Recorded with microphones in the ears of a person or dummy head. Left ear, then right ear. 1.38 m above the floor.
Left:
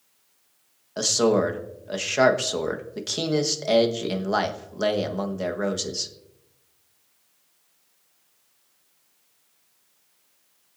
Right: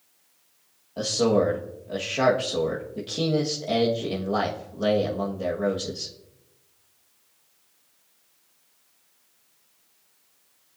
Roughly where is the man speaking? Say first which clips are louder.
Left 1 dB; left.